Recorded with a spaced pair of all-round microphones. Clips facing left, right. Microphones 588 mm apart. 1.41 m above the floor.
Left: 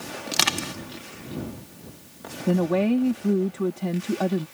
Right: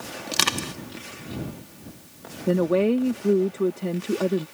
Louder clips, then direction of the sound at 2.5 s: Right 1 dB; 15° left (ahead or behind).